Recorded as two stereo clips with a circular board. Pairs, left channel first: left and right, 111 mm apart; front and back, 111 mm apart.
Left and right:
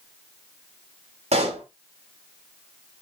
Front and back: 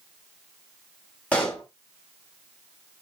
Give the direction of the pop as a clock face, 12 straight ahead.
3 o'clock.